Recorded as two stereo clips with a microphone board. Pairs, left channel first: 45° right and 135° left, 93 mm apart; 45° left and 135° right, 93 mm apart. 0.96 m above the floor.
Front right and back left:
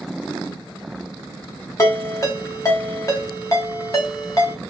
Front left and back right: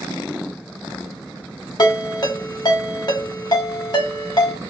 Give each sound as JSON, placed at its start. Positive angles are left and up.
{"t": 1.8, "sound": "a ringtone", "azimuth_deg": 5, "distance_m": 0.9}